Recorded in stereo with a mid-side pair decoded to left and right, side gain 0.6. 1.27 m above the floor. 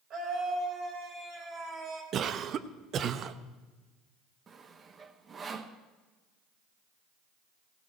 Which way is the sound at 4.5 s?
35° right.